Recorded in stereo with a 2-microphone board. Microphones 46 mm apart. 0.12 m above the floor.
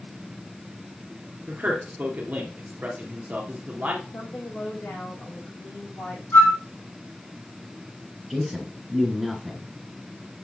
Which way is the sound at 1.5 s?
40° right (ahead or behind).